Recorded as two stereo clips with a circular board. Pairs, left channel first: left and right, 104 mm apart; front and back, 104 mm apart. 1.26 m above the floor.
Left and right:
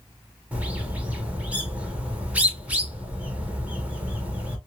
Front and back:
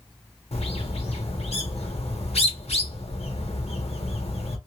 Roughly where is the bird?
Ahead.